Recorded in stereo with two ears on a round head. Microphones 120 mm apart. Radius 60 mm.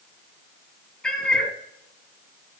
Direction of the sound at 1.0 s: 5° left (ahead or behind).